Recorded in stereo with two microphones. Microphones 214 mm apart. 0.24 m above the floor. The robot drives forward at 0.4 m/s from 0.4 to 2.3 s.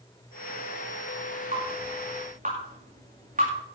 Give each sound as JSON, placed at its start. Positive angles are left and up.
{"t": 1.5, "sound": "dripping", "side_deg": -35, "distance_m": 8.0}